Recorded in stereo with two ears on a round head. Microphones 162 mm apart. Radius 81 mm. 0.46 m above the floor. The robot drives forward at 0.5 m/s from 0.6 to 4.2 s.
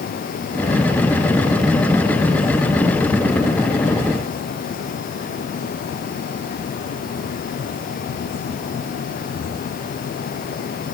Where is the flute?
No flute in this recording.